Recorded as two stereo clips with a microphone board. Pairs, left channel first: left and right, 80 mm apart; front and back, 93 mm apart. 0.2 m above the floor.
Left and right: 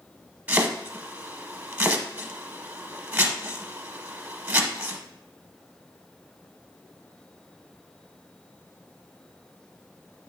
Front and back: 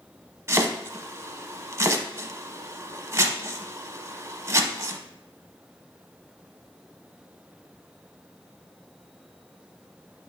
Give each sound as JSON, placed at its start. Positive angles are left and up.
{"t": 0.5, "sound": "chopping", "azimuth_deg": -145, "distance_m": 0.7}